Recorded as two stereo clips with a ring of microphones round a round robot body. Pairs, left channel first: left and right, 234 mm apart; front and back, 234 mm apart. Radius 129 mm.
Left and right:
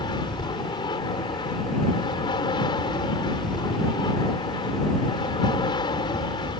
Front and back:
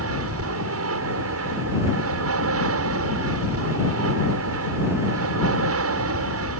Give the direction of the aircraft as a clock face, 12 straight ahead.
7 o'clock.